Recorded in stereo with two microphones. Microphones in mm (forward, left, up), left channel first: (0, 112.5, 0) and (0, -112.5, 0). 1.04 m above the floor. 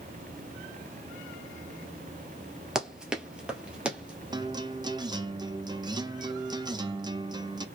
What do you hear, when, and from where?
2.8 s running footsteps: 5° right (ahead or behind), 1.2 m
4.3 s a guitar: 20° right (ahead or behind), 0.6 m